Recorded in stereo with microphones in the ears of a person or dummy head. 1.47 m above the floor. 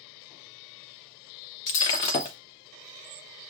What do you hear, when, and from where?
1.7 s breaking glass: 30° left (ahead or behind), 0.6 m